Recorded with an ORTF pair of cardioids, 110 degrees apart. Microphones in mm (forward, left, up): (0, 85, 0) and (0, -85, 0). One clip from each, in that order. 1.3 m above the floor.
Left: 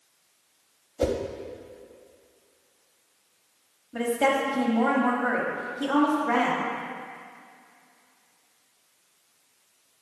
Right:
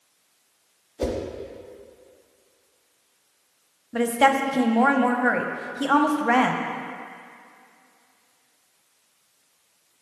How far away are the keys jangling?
I don't hear keys jangling.